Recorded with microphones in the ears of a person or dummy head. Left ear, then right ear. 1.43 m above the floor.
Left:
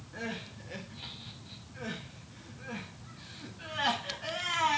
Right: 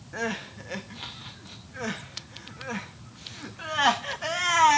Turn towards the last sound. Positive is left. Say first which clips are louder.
# right 8 dB
turn(degrees=-35)  # may be behind; listen again after turning